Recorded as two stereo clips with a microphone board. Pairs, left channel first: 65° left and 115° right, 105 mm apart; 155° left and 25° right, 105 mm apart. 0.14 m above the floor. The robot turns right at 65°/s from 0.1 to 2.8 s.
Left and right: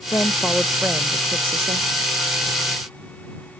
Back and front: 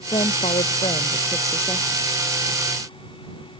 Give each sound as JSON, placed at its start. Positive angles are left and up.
{"t": 0.1, "sound": "a woman speaking", "azimuth_deg": 125}